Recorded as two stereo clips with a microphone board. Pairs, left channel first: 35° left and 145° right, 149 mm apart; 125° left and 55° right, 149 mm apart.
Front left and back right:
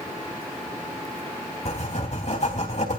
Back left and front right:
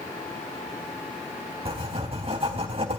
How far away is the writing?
About 4 m.